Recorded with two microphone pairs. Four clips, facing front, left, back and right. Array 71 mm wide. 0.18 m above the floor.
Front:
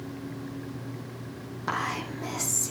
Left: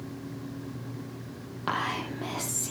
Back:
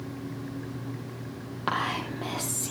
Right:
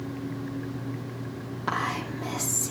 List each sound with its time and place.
1.7 s whispering: 160° left, 6.5 m